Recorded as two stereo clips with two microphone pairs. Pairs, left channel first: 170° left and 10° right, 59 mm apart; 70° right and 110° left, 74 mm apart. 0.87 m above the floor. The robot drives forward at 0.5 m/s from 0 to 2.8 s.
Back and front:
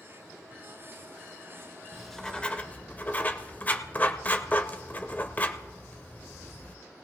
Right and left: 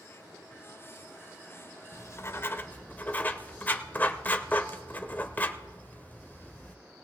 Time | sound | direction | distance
1.9 | writing | 95° right | 0.7 m